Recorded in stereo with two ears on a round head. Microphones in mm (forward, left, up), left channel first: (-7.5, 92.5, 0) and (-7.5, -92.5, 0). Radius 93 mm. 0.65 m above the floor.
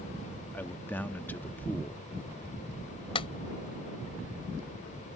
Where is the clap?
25° left (ahead or behind).